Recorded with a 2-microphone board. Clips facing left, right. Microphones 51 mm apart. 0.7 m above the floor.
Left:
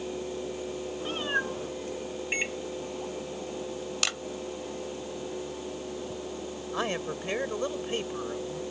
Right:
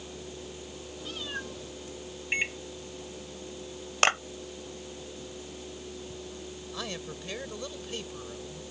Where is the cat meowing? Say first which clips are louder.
Left 8 dB; 40° left (ahead or behind).